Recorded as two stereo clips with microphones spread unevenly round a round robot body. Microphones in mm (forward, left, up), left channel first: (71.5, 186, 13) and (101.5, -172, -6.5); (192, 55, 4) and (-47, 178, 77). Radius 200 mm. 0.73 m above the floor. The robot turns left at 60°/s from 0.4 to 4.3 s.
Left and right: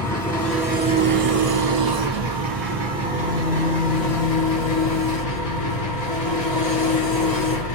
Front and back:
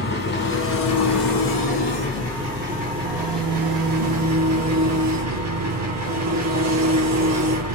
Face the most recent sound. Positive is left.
turn(degrees=135)